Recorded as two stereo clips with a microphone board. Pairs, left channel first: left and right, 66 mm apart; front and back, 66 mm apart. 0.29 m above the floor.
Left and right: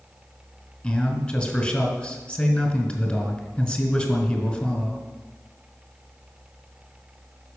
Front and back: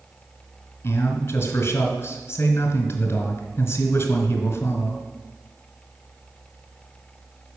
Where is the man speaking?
25° left, 1.9 m.